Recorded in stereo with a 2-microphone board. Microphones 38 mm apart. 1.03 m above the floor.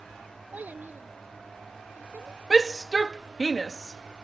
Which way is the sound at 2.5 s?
5° right (ahead or behind).